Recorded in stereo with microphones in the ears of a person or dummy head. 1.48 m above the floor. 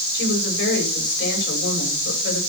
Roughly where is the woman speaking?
Left.